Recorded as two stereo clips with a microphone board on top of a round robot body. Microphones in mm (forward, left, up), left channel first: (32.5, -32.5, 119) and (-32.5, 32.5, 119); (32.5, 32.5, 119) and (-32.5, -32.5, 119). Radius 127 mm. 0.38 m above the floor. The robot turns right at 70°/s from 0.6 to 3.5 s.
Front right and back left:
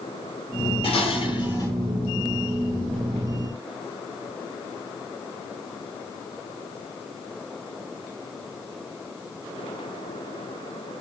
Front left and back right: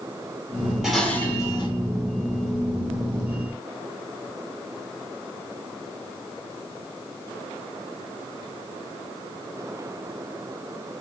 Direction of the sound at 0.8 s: 50° right.